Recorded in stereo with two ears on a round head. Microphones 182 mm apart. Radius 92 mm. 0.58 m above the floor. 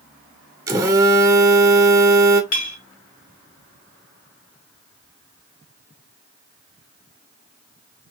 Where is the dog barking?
I don't hear a dog barking.